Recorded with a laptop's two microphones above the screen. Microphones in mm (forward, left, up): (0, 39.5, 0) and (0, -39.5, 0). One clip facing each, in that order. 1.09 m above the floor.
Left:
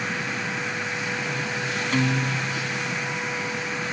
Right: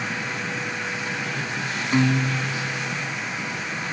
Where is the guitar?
15° right (ahead or behind).